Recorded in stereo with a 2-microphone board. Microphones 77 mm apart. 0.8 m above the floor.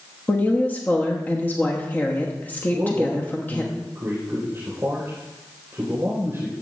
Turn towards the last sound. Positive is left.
turn(degrees=-35)  # may be behind; listen again after turning